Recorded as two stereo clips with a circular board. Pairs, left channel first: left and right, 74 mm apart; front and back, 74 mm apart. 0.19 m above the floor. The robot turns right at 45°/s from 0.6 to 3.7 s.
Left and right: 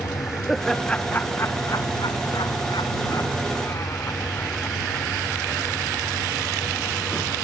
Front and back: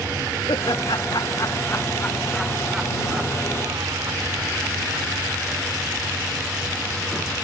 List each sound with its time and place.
0.5 s laughter: straight ahead; by 5.1 s 140° left